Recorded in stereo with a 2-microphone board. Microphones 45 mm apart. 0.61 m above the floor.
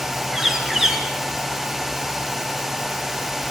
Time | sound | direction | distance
0.3 | a bird | 10° right (ahead or behind) | 3 m